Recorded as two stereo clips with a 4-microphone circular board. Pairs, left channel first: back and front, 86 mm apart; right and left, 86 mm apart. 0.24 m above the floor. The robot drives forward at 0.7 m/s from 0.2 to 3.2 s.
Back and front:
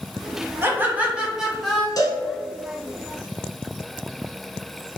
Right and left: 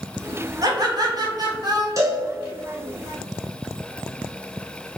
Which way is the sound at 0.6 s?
60° left.